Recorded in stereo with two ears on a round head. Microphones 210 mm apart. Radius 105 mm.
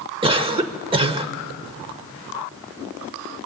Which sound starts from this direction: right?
A cough, at 0.2 s.